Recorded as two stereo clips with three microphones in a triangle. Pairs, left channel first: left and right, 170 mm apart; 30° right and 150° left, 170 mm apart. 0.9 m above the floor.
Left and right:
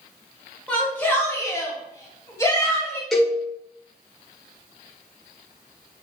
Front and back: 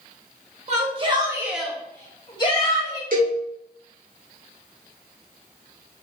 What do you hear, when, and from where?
0.7 s a shout: 170° left, 1.2 m; by 3.0 s 15° left, 1.9 m
3.1 s a cowbell: straight behind, 1.2 m